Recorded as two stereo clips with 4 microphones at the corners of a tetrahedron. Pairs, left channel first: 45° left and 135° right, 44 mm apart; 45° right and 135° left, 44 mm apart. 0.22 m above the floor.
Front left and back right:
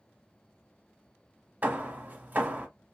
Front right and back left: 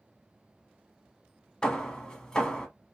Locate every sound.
1.6 s hammering: 105° right, 0.8 m